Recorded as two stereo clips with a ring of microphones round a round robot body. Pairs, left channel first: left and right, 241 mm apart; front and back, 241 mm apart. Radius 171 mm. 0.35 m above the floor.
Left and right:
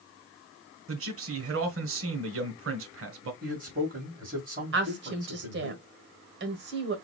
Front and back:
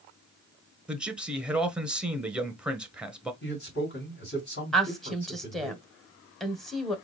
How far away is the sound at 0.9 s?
About 1.3 m.